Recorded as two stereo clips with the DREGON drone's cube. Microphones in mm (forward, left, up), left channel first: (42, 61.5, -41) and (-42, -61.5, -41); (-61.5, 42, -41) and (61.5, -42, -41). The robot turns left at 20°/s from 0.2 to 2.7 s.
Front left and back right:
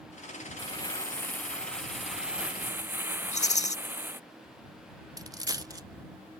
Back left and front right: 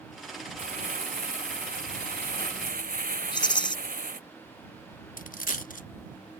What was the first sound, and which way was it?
Crumpling, 5° right.